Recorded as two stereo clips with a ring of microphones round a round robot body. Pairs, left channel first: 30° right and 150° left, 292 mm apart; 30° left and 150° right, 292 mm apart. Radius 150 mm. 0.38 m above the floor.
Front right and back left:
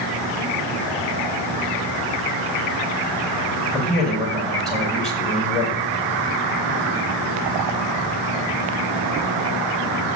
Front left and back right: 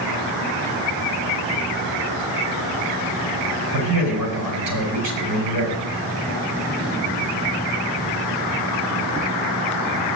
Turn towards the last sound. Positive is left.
turn(degrees=-120)